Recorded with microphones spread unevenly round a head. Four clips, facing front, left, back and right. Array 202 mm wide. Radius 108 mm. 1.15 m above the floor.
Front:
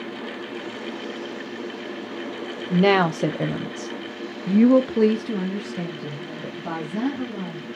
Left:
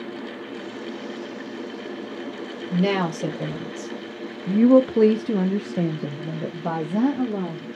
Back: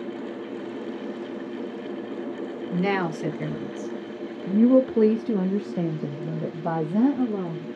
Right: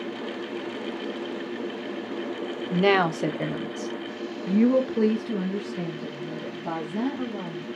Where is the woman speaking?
15° right, 1.3 m; by 7.7 s 125° left, 1.7 m.